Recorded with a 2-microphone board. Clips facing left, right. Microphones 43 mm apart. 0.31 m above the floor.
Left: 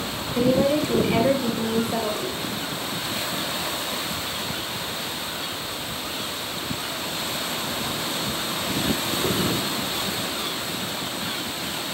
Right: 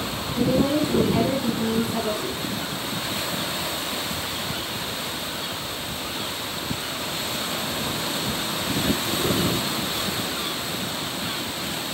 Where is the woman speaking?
70° left (ahead or behind), 4.5 m.